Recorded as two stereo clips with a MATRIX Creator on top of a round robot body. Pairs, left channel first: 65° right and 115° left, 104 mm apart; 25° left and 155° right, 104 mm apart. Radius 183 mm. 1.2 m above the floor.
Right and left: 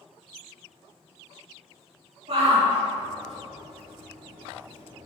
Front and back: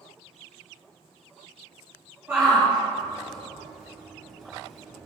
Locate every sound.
2.3 s a shout: 130° left, 4 m; by 5.1 s 120° left, 5.5 m